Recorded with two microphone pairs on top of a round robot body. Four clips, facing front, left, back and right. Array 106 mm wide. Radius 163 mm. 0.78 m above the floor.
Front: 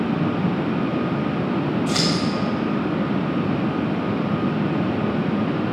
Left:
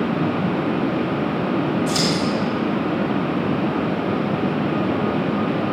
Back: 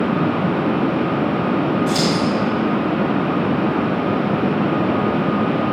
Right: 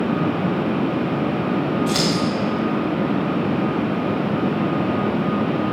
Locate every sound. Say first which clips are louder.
1.9 s scissors: even, back 4 dB; 40° right, 2 m